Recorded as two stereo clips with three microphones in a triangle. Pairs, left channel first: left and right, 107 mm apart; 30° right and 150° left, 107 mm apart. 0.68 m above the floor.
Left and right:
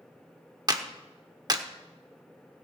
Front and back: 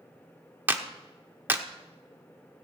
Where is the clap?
140° right, 1.1 m.